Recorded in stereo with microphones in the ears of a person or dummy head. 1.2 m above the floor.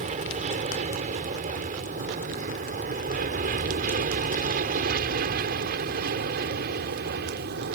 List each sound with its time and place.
0.0 s an aircraft: 40° right (ahead or behind); by 7.8 s 55° right (ahead or behind)